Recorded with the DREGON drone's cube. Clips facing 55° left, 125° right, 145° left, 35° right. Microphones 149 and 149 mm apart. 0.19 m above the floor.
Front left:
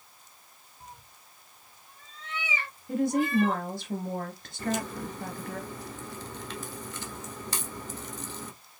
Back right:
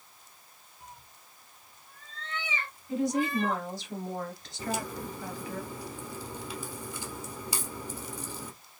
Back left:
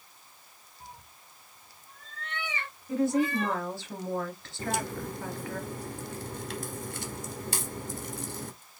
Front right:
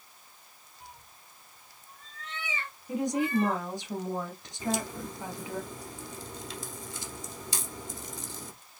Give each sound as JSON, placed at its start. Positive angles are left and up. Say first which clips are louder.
{"t": 0.8, "sound": "a cat meowing", "louder": "front left 1 dB, back left 2 dB", "azimuth_deg": 95, "distance_m": 1.0}
{"t": 2.9, "sound": "a woman speaking", "louder": "front left 3 dB, back left 2 dB", "azimuth_deg": 35, "distance_m": 2.0}
{"t": 4.6, "sound": "a crack", "louder": "front left 3 dB, even", "azimuth_deg": 155, "distance_m": 1.4}